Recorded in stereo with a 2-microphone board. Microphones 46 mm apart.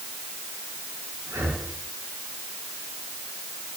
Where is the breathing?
80° right, 7.5 m.